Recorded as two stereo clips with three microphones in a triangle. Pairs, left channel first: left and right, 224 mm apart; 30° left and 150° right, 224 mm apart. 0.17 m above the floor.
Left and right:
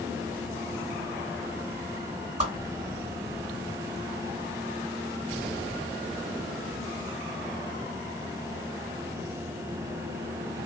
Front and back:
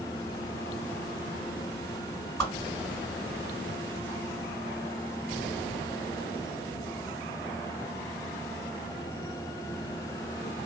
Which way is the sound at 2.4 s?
55° right.